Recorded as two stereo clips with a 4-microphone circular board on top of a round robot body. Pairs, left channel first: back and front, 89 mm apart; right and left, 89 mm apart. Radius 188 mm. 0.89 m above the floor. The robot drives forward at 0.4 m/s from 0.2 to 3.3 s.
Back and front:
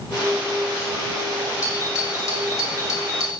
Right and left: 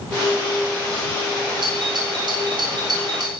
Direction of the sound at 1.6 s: 125° left.